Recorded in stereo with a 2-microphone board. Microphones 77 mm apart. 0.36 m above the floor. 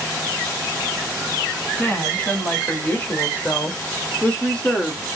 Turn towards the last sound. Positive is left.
turn(degrees=10)  # may be behind; listen again after turning